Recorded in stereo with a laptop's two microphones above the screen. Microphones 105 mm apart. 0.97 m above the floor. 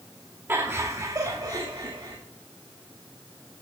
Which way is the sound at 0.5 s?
25° right (ahead or behind).